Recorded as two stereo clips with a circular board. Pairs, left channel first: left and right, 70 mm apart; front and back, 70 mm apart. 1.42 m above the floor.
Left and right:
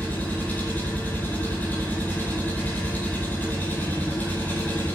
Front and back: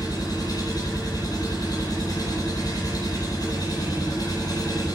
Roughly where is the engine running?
Ahead left.